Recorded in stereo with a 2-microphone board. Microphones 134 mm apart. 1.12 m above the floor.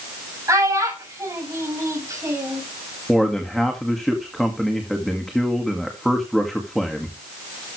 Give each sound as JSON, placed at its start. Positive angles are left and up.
{"t": 0.5, "sound": "a child speaking", "side_deg": -25, "distance_m": 5.5}
{"t": 3.1, "sound": "a man speaking", "side_deg": 0, "distance_m": 2.0}